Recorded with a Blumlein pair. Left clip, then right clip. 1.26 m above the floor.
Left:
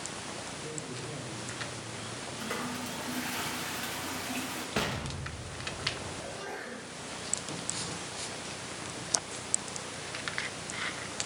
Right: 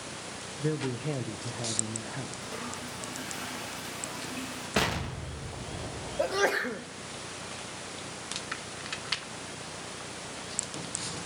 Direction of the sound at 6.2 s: 50° right.